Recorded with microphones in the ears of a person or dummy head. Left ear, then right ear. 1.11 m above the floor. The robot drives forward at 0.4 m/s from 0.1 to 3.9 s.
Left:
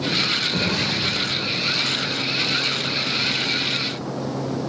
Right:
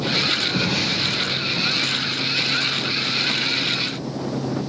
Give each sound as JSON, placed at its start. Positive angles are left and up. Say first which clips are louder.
{"t": 0.5, "sound": "an explosion", "louder": "right 1 dB", "side_deg": 40, "distance_m": 2.5}